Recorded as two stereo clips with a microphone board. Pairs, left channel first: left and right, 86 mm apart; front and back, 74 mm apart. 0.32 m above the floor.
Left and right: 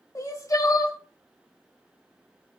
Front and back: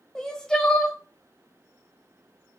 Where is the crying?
75° left, 0.6 m.